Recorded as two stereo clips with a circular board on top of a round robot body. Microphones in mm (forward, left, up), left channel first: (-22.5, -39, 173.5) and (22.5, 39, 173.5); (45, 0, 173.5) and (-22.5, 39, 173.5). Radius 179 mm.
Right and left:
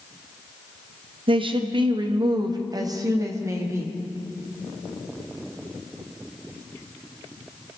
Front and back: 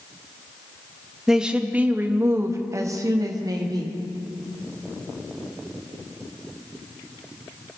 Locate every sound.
1.3 s a woman speaking: 65° left, 1.3 m; by 4.0 s 120° left, 1.8 m